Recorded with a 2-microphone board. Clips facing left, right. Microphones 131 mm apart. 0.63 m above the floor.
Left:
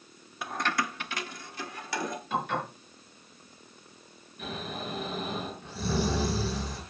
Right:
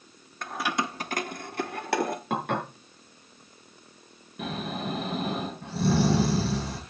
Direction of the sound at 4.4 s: 80° right.